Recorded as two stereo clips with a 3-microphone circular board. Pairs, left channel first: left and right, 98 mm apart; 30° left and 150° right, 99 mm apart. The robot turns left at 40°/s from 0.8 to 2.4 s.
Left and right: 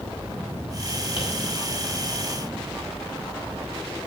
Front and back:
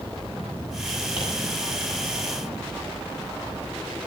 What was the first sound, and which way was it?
Tapping, 60° left.